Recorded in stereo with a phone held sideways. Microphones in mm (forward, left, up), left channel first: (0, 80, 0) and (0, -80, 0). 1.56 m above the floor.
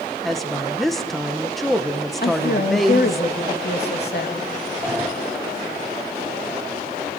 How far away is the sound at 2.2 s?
About 2.5 m.